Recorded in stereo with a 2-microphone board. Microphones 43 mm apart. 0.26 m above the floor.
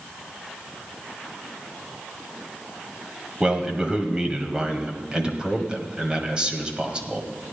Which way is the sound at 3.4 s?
20° right (ahead or behind).